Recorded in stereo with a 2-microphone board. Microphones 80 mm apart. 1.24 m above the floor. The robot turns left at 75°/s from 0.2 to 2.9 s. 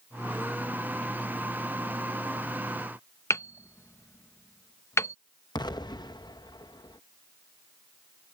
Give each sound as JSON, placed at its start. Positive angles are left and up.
{"t": 3.3, "sound": "hammering", "side_deg": 35}
{"t": 5.5, "sound": "an explosion", "side_deg": 65}